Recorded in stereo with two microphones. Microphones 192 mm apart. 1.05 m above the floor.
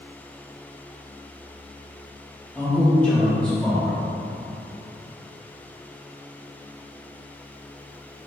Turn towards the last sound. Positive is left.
turn(degrees=10)  # may be behind; listen again after turning